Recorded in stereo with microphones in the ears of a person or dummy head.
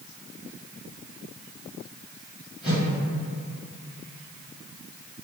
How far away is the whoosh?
About 1.2 m.